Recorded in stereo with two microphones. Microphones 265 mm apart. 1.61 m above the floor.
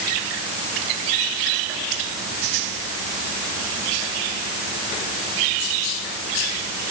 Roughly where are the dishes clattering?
No dishes clattering in this recording.